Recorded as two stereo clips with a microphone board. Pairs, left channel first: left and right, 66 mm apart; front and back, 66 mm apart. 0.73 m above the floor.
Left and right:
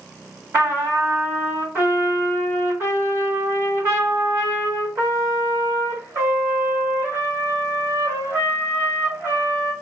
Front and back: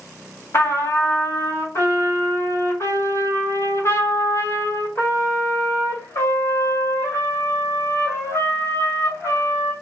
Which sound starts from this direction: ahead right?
A trumpet, at 0.5 s.